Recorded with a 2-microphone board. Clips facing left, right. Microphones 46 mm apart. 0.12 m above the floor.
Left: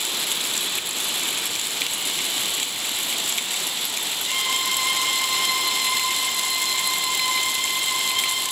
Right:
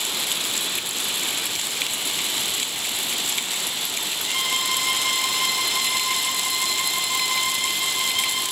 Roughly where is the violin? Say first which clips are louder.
Even; centre.